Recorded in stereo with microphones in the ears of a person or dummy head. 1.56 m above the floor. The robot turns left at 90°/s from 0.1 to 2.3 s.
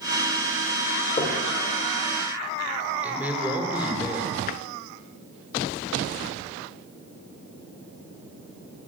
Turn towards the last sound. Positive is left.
turn(degrees=45)  # may be behind; listen again after turning